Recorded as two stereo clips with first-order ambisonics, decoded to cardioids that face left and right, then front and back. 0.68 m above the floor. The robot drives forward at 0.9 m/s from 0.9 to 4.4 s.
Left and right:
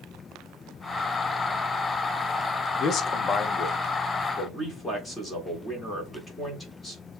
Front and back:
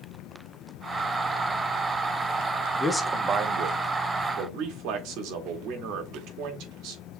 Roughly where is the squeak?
No squeak in this recording.